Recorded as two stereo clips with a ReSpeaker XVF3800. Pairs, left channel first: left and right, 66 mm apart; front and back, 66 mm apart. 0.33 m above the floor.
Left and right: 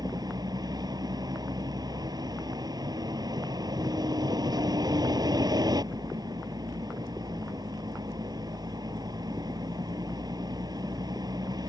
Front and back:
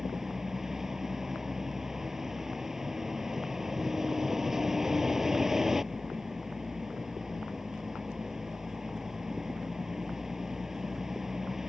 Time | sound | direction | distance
0.0 | a vehicle | 95° right | ?